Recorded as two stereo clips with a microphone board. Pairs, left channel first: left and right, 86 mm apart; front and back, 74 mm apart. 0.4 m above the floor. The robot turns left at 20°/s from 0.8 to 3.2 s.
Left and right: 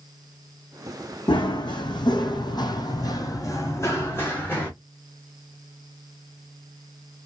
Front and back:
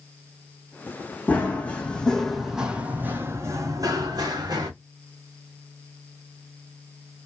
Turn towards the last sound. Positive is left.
turn(degrees=155)